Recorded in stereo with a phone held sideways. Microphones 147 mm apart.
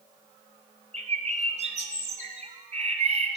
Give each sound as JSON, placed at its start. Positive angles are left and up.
{"t": 0.9, "sound": "a bird", "side_deg": -55, "distance_m": 1.1}